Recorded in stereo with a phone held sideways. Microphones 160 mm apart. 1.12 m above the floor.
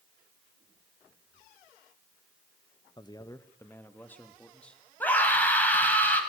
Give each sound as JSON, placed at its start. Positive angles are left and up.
{"t": 3.0, "sound": "a man speaking", "side_deg": 25, "distance_m": 1.3}
{"t": 5.0, "sound": "a scream", "side_deg": 10, "distance_m": 7.0}